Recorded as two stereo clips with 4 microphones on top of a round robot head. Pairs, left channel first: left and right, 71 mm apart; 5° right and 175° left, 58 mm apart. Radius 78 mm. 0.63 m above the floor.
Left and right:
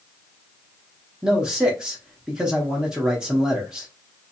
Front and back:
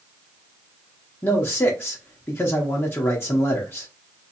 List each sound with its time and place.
1.2 s a man speaking: 15° right, 1.0 m